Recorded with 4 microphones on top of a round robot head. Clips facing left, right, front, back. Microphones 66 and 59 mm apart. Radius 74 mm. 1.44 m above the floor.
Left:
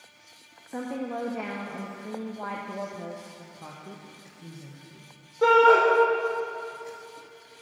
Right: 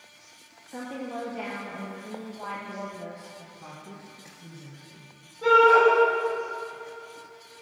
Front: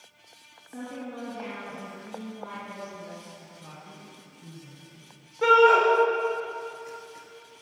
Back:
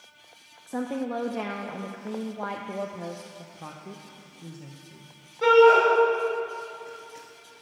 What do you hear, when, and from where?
0.7 s a woman speaking: 160° left, 0.6 m
3.4 s a woman speaking: 160° left, 0.9 m
5.4 s a shout: 80° left, 4 m